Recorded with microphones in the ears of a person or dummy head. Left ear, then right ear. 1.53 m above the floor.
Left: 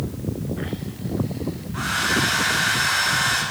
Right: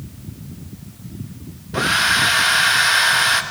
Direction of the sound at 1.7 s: 45° right (ahead or behind).